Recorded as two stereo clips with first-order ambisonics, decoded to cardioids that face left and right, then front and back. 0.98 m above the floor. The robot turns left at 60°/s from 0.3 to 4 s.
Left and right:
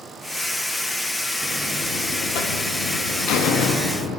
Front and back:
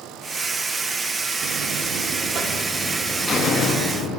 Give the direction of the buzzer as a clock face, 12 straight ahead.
6 o'clock.